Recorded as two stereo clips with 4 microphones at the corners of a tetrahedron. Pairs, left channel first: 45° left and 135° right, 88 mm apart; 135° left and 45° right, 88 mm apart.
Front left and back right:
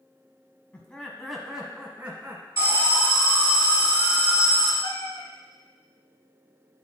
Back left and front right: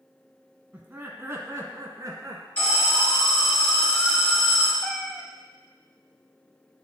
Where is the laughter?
Straight ahead, 1.2 m; by 2.5 s 75° right, 1.7 m.